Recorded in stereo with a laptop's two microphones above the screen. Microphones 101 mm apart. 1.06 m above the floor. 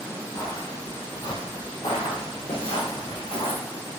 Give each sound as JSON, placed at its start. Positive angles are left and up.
{"t": 0.3, "sound": "footsteps", "side_deg": 25, "distance_m": 1.6}